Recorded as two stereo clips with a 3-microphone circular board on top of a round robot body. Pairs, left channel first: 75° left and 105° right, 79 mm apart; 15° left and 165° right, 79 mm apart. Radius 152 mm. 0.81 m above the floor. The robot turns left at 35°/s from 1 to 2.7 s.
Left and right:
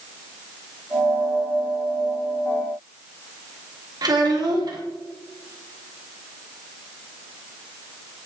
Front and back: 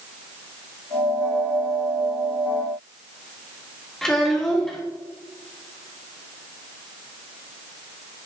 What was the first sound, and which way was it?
A child speaking, 70° right.